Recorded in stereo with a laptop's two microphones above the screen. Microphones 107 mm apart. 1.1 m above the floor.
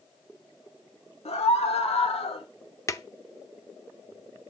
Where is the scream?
75° left (ahead or behind), 3 m; by 2.5 s 60° left (ahead or behind), 2 m.